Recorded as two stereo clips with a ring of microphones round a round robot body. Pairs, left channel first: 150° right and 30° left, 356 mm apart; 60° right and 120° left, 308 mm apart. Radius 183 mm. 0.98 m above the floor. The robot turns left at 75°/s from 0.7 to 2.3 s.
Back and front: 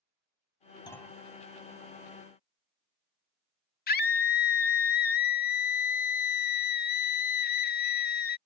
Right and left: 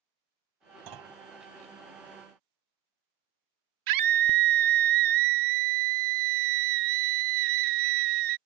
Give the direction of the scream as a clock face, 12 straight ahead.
7 o'clock.